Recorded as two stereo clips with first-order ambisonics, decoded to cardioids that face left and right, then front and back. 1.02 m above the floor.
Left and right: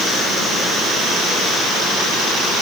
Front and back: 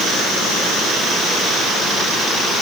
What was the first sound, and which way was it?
Only background noise.